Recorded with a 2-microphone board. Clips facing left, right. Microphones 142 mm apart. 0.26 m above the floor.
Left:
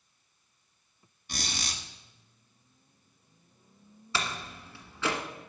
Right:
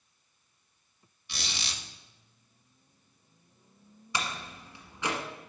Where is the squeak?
45° left (ahead or behind), 1.5 m.